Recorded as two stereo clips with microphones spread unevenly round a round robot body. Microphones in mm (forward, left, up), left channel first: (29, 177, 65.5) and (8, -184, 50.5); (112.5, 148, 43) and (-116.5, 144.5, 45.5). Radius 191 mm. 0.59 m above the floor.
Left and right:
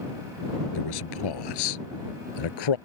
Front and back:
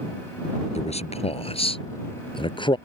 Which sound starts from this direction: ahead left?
A man speaking, at 0.8 s.